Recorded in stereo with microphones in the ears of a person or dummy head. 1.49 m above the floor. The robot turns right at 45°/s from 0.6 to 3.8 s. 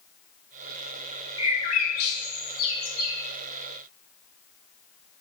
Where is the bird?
25° left (ahead or behind), 1.2 m; by 3.1 s 70° left (ahead or behind), 1.2 m.